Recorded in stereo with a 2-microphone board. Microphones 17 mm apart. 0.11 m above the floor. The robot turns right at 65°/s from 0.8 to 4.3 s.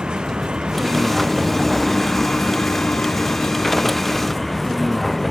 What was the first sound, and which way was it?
A vehicle, 55° right.